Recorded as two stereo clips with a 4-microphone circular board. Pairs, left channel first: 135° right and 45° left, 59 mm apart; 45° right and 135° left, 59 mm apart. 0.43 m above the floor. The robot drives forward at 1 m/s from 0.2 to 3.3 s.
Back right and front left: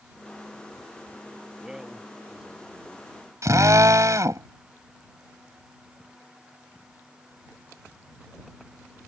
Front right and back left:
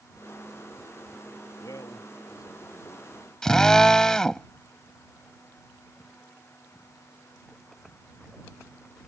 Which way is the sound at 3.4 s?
35° left.